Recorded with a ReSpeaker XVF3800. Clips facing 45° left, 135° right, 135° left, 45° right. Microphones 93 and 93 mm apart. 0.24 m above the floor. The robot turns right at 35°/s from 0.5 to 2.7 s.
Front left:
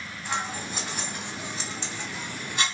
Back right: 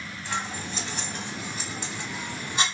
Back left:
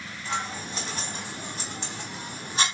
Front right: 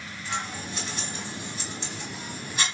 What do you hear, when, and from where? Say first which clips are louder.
0.2 s scissors: front left 1 dB, back left 2 dB; 105° left, 0.9 m; by 2.6 s straight behind, 0.9 m